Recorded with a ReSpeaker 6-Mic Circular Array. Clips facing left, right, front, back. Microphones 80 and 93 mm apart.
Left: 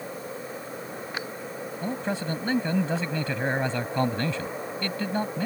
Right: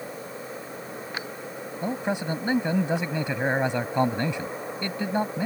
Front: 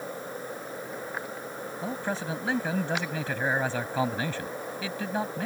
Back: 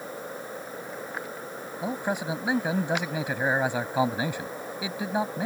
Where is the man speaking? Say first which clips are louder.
Right 2 dB, back 3 dB; 130° right.